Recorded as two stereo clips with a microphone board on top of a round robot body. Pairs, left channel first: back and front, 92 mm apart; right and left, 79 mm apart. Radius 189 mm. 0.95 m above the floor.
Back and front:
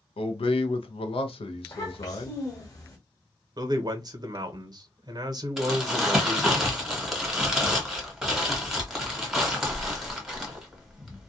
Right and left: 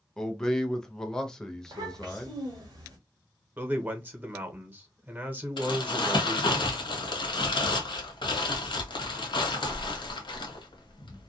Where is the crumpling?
85° right, 1.1 m.